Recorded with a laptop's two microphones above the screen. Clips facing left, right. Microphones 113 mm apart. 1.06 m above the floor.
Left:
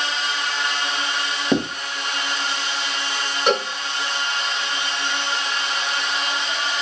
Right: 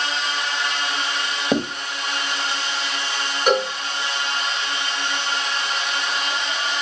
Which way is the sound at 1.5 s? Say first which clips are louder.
Left 1 dB; 5° right (ahead or behind).